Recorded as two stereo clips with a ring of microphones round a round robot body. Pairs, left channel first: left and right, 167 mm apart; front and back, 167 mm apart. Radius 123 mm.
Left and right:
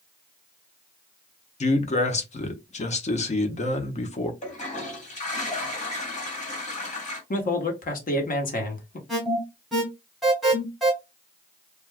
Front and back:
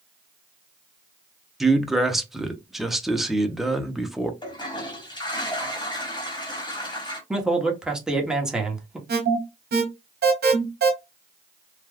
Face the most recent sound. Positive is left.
turn(degrees=180)